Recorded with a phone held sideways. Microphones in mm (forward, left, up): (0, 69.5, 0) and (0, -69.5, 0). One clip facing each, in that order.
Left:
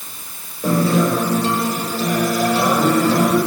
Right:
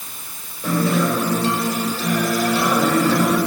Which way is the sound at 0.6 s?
40° left (ahead or behind).